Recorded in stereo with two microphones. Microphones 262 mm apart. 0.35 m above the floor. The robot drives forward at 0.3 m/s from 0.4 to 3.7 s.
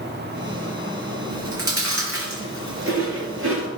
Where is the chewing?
55° right (ahead or behind), 4 m; by 3.7 s 50° right (ahead or behind), 4.5 m.